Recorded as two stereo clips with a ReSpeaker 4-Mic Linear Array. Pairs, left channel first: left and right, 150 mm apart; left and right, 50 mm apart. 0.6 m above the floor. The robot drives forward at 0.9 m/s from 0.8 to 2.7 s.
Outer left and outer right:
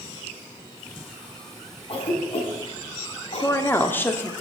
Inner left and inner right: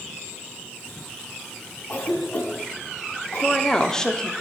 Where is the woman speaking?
15° left (ahead or behind), 0.9 m.